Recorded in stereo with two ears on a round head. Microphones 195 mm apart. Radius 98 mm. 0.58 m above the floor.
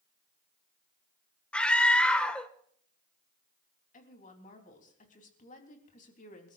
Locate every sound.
1.5 s a scream: 5° left (ahead or behind), 1.7 m
3.9 s a woman speaking: 40° left (ahead or behind), 3.5 m